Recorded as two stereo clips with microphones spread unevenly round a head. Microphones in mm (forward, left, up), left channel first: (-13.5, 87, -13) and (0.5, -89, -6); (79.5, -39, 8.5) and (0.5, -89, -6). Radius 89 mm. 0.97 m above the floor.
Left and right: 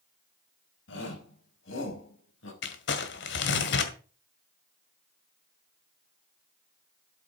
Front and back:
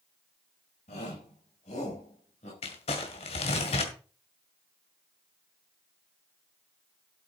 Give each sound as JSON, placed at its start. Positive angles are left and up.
{"t": 0.9, "sound": "a shout", "azimuth_deg": 65, "distance_m": 4.5}
{"t": 2.6, "sound": "crumpling", "azimuth_deg": 65, "distance_m": 1.9}